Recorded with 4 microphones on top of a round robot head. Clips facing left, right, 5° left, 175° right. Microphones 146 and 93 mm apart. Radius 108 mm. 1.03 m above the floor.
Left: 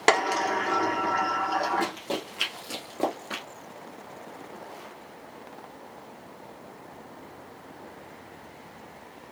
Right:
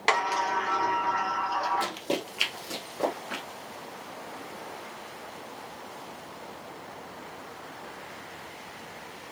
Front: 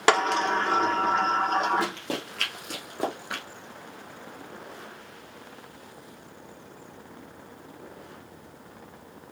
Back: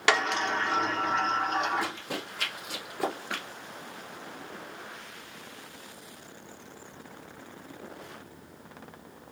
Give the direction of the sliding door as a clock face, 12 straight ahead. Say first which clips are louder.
Left 3 dB, front 4 dB; 10 o'clock.